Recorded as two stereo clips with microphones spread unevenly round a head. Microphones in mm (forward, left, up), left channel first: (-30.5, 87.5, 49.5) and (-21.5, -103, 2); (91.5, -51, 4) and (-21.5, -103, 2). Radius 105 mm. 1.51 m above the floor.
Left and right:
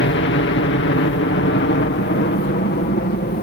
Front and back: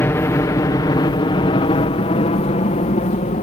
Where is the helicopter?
95° left; by 3.4 s 50° left.